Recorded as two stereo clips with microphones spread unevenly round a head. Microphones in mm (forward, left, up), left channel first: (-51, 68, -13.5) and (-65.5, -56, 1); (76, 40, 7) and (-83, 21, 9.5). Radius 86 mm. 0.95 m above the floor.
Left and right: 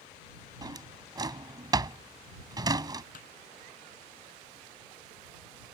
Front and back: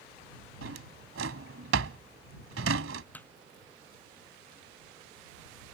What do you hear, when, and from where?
0.6 s a drawer: 150° right
3.1 s hammering: 85° left